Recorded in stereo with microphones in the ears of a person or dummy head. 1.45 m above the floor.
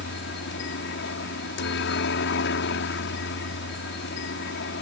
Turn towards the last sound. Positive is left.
turn(degrees=60)  # may be behind; listen again after turning